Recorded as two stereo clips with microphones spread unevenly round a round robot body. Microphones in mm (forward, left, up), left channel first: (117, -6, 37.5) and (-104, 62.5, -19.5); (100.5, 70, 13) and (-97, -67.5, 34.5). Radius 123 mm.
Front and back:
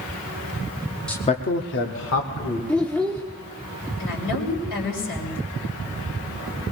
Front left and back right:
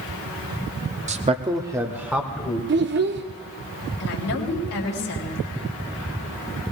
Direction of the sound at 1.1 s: 135° right.